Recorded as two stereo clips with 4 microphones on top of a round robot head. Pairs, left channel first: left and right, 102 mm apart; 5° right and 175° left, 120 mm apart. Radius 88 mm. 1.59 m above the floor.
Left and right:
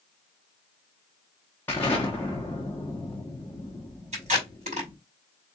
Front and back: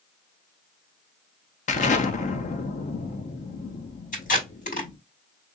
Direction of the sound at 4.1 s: 45° right.